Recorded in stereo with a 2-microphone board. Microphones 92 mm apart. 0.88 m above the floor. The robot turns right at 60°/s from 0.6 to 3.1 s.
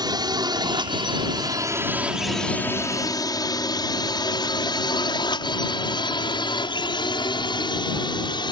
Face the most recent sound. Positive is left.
turn(degrees=55)  # may be behind; listen again after turning